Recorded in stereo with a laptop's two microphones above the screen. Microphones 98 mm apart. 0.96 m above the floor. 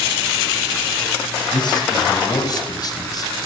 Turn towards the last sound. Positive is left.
turn(degrees=40)  # may be behind; listen again after turning